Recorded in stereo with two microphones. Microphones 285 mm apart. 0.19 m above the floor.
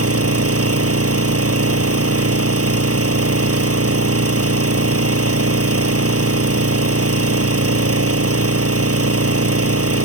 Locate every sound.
0.0 s an engine running: 55° right (ahead or behind)